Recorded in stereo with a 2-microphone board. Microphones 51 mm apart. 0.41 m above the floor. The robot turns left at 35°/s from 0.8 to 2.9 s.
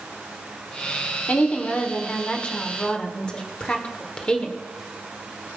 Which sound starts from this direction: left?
A woman speaking, at 1.3 s.